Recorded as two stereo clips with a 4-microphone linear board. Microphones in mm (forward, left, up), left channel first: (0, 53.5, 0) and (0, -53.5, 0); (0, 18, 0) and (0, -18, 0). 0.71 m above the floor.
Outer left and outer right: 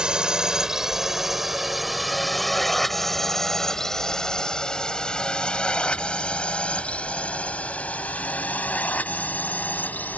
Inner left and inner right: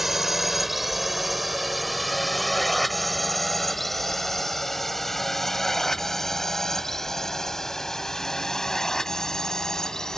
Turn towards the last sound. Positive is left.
turn(degrees=15)  # may be behind; listen again after turning